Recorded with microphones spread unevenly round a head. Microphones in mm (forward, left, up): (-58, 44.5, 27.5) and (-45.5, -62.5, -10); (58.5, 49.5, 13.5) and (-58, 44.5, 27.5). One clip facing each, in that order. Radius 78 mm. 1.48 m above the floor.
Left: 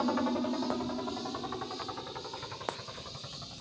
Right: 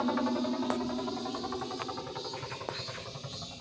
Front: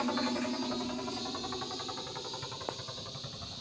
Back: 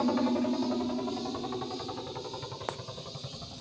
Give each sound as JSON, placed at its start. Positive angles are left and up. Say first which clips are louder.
{"t": 0.0, "sound": "a helicopter", "louder": "even, back 5 dB", "azimuth_deg": -165}